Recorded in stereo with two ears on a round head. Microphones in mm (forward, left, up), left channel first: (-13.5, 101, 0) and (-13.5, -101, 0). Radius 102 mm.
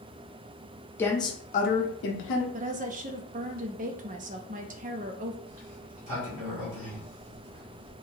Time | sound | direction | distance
1.0 | a woman speaking | 10° left (ahead or behind) | 0.9 m
2.5 | a woman speaking | 35° right (ahead or behind) | 0.6 m
5.5 | a sliding door | 70° right (ahead or behind) | 2.5 m